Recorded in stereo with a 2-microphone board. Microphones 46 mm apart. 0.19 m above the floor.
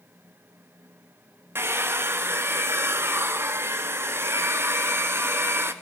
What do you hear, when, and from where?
1.6 s a hair dryer: 65° right (ahead or behind), 0.8 m